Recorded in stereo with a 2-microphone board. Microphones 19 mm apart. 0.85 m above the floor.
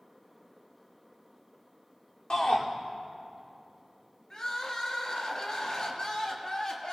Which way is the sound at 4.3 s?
45° left (ahead or behind).